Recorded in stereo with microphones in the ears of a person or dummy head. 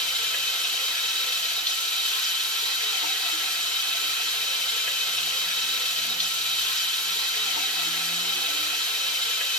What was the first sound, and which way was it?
Running water, 5° right (ahead or behind).